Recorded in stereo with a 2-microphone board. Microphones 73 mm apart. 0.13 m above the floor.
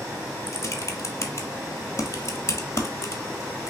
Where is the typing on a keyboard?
40° left (ahead or behind), 0.9 m.